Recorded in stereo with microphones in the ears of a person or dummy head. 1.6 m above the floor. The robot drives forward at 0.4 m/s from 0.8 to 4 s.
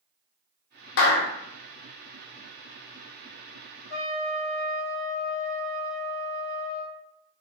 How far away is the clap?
About 1.2 m.